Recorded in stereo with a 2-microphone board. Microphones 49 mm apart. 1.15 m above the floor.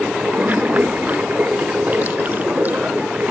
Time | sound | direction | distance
0.0 | running water | 35° right (ahead or behind) | ?